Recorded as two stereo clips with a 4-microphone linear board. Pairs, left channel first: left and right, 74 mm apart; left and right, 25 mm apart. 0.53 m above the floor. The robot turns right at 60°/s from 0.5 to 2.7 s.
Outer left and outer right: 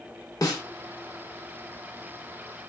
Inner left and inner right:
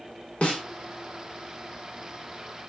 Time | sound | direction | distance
0.4 | a snare drum | 50° left (ahead or behind) | 0.8 m